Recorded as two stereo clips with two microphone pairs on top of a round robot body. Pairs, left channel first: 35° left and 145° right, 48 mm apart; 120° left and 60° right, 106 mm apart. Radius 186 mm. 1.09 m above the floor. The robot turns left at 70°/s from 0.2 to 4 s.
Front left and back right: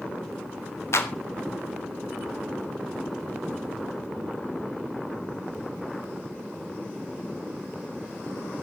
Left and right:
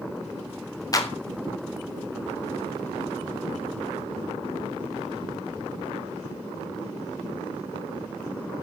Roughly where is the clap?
Ahead left.